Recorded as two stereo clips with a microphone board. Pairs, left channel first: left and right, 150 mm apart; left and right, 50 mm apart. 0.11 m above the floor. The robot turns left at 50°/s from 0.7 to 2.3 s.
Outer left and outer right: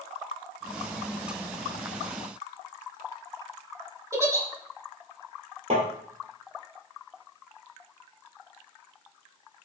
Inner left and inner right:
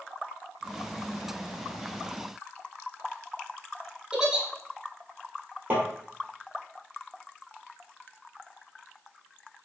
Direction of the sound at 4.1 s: 20° right (ahead or behind).